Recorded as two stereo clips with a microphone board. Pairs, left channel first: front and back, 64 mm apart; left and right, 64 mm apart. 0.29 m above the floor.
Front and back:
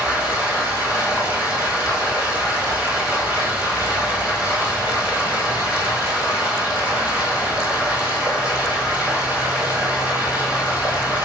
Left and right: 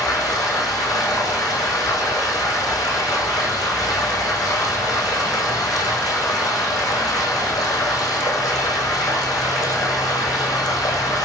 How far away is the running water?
About 3 m.